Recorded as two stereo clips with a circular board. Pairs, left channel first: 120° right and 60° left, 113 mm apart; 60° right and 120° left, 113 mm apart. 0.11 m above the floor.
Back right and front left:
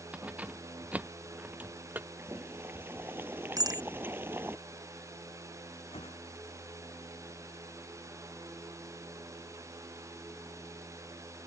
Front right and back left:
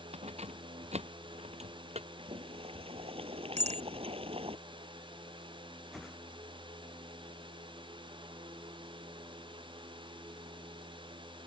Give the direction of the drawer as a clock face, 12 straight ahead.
I don't hear a drawer.